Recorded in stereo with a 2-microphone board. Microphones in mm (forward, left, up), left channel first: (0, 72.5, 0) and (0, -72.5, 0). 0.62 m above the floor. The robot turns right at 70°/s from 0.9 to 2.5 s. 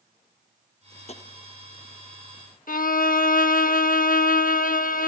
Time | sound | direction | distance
1.1 | tapping | 45° left (ahead or behind) | 0.8 m
2.7 | a violin | 75° left (ahead or behind) | 0.5 m